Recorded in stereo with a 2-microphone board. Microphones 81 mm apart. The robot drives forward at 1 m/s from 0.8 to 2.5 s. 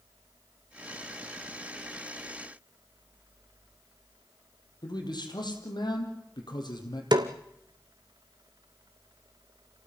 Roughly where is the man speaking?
Left.